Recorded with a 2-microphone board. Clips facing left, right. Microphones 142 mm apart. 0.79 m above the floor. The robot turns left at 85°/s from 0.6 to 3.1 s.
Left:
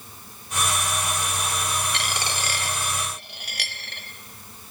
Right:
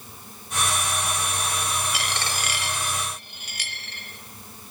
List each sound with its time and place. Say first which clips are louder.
1.9 s a dropped coin: even; 5° right (ahead or behind), 1.0 m; by 4.0 s 70° left (ahead or behind), 1.0 m